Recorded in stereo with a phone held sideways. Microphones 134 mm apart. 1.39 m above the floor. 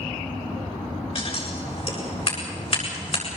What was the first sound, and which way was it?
Scissors, 45° left (ahead or behind).